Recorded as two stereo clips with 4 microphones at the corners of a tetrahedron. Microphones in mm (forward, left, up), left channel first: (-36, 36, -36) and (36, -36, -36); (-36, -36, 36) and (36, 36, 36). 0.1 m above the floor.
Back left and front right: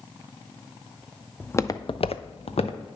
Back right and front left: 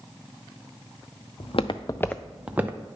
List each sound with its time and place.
1.4 s footsteps: 150° right, 0.8 m; by 2.8 s 110° left, 1.1 m